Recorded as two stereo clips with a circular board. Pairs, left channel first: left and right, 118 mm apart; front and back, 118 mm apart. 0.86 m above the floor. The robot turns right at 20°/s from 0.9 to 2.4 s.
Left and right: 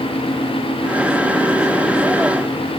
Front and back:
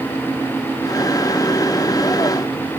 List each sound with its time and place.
Only background noise.